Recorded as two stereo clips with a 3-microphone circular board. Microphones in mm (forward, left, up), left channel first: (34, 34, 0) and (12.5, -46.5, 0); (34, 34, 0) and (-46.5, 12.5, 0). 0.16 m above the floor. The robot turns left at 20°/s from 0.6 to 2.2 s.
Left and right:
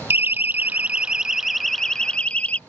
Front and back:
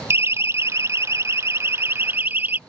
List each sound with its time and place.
0.1 s a siren: 145° right; by 2.6 s 140° left